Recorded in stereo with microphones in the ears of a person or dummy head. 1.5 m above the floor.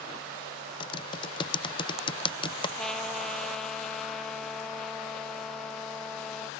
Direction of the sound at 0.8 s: 25° left (ahead or behind).